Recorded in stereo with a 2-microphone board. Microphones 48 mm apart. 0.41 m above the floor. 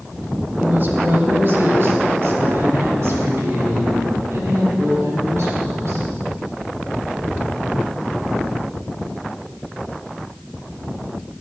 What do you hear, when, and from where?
0.6 s a woman speaking: 40° right (ahead or behind), 1.7 m; by 6.1 s 75° right (ahead or behind), 5 m